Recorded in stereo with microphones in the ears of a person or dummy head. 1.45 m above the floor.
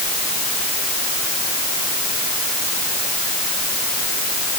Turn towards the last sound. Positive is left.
No sound to turn to.